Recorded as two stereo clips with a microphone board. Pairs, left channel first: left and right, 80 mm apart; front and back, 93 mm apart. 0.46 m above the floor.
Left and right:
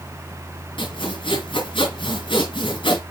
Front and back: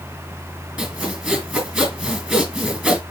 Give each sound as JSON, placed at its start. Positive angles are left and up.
{"t": 0.8, "sound": "sawing", "azimuth_deg": 100, "distance_m": 4.5}